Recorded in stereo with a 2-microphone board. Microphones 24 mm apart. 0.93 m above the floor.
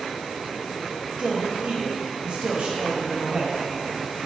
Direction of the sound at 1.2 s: 50° right (ahead or behind).